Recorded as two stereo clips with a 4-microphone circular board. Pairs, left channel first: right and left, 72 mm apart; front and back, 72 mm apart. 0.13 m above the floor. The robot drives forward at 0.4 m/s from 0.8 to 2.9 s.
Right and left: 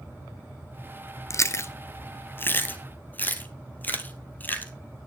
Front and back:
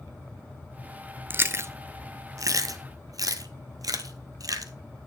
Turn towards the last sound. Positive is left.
turn(degrees=-155)